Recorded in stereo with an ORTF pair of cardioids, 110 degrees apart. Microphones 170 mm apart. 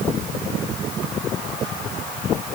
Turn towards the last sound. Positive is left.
No sound to turn to.